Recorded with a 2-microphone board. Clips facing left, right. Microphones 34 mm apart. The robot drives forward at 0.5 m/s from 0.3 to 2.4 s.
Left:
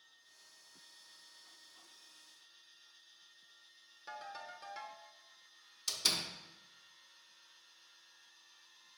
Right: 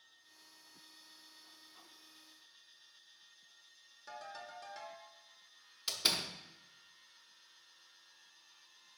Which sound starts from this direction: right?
A door slam, at 5.9 s.